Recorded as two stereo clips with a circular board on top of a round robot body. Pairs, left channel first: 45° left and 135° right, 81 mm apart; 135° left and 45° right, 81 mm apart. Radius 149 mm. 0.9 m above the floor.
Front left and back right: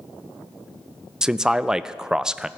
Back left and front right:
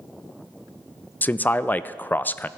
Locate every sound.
1.2 s a man speaking: 155° left, 0.6 m